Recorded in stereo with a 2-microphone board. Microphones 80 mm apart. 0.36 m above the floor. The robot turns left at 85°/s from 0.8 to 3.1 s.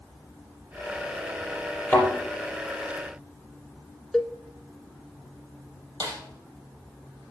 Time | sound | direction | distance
1.9 | a thud | 25° left (ahead or behind) | 5 m
4.1 | a cowbell | 5° left (ahead or behind) | 0.6 m
6.0 | a snare drum | 70° right (ahead or behind) | 4 m